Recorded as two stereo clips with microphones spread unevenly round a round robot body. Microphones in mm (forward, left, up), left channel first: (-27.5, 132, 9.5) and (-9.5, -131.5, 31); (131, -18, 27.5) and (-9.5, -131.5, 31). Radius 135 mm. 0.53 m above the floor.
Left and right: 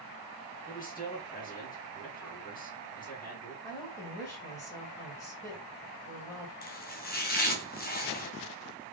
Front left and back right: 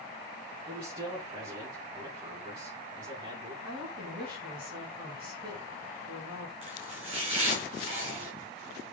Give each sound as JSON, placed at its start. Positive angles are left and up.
{"t": 0.7, "sound": "a man speaking", "azimuth_deg": 150, "distance_m": 4.0}
{"t": 3.6, "sound": "a woman speaking", "azimuth_deg": 170, "distance_m": 3.5}
{"t": 6.6, "sound": "chopping", "azimuth_deg": 150, "distance_m": 2.0}